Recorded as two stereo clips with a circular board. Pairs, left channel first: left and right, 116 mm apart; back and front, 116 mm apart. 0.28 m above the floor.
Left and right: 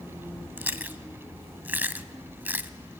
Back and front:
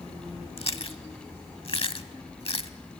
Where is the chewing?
160° right, 0.8 m.